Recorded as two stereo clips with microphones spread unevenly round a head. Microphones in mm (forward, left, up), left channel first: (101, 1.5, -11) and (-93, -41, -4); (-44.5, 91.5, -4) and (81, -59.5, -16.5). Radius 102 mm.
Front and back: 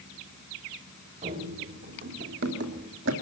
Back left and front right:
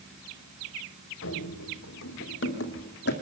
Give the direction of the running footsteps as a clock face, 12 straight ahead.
7 o'clock.